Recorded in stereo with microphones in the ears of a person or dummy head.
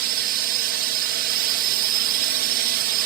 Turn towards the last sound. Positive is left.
turn(degrees=-50)  # may be behind; listen again after turning